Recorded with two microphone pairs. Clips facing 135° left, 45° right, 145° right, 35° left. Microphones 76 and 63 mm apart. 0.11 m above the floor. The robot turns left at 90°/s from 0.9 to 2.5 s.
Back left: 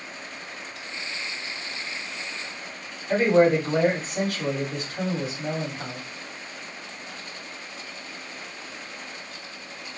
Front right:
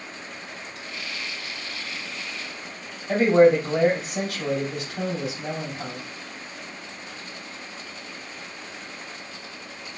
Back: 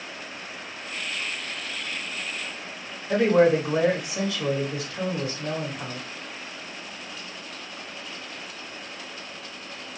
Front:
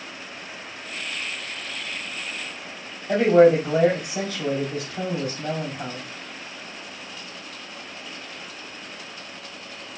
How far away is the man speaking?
About 3 m.